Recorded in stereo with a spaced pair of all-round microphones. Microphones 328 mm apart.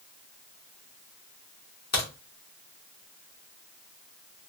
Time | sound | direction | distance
1.9 | a crack | 50° left (ahead or behind) | 1.2 m